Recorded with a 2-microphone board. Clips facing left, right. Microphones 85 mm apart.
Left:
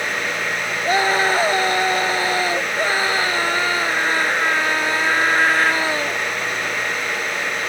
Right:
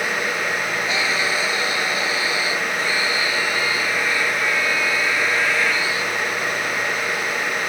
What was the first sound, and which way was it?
A scream, 45° left (ahead or behind).